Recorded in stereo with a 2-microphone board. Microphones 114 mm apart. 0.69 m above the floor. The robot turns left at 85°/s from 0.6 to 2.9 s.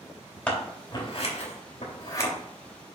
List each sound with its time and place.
0.5 s scissors: 10° left (ahead or behind), 3 m; by 2.3 s 25° left (ahead or behind), 3 m